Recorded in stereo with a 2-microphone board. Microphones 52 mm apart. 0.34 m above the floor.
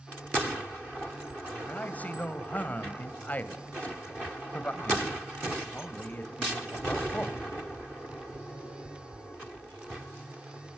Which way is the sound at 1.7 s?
35° left (ahead or behind).